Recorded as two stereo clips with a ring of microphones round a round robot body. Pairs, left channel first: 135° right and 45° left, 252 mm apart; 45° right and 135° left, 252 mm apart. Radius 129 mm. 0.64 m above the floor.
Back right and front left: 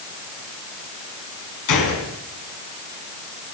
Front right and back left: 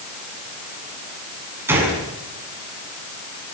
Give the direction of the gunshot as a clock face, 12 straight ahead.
5 o'clock.